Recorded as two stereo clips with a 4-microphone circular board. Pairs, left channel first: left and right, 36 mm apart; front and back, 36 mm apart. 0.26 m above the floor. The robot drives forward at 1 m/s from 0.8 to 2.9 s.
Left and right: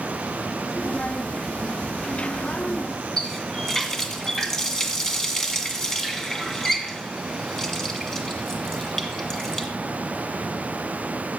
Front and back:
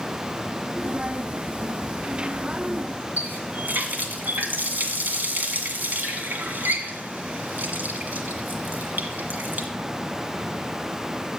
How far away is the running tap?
About 1.7 m.